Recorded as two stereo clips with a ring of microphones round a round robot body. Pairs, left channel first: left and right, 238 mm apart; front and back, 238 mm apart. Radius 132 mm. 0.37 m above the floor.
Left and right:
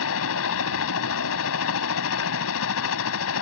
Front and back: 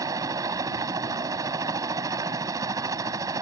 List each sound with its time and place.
0.0 s a helicopter: 105° left